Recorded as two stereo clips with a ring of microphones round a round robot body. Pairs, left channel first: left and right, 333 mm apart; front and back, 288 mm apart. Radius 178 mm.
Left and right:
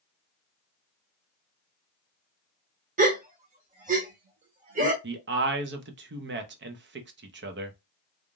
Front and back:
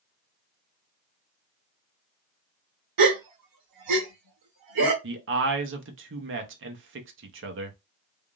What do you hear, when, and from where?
3.0 s a gasp: 155° right, 0.9 m
5.0 s a man speaking: 140° right, 0.9 m